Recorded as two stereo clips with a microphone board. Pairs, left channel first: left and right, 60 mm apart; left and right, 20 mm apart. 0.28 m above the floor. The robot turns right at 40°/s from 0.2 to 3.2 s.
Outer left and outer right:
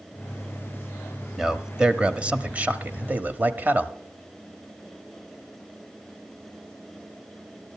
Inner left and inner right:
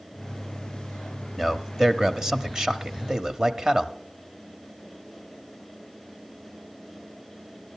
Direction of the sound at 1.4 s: 5° right (ahead or behind).